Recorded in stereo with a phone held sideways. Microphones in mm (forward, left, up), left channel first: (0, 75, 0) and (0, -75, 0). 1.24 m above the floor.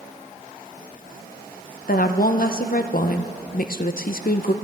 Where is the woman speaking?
70° left (ahead or behind), 0.6 m.